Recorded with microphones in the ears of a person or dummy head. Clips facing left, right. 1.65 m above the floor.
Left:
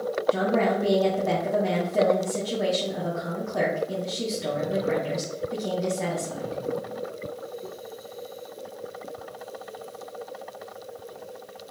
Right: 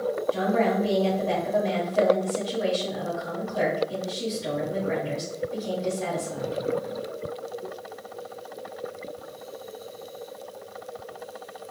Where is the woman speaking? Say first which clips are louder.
Left 1 dB; 75° left (ahead or behind), 1.9 m.